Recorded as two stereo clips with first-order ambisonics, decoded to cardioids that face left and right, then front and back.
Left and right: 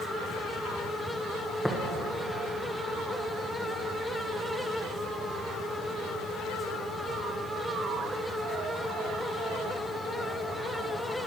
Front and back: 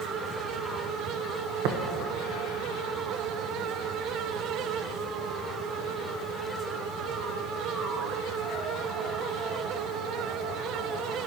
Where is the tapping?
175° left, 1.4 m.